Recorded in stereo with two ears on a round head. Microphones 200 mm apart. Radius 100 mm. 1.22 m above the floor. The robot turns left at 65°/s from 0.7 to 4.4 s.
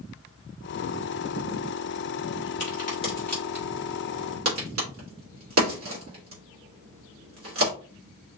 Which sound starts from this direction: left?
A crack, at 2.6 s.